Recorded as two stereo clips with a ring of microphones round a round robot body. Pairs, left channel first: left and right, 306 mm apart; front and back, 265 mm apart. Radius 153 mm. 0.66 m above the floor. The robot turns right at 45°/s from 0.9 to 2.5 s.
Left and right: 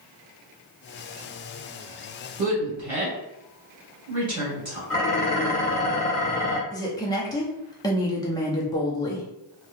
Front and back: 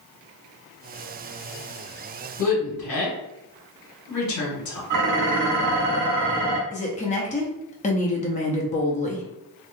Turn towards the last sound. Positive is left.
turn(degrees=25)